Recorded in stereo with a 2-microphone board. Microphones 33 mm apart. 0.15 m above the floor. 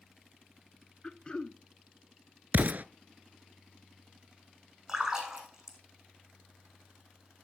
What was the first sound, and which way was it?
Throat clearing, 30° left (ahead or behind).